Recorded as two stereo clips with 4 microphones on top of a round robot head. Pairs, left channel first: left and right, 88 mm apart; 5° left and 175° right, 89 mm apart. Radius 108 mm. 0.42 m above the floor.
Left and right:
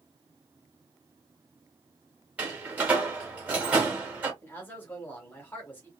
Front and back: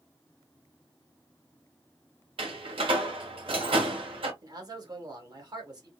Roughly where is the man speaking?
Behind left.